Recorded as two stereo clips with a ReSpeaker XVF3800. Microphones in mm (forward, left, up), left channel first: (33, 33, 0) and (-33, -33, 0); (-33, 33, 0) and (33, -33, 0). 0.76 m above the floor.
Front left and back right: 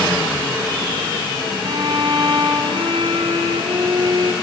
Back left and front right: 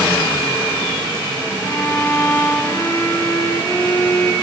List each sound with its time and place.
1.6 s a violin: 165° right, 1.8 m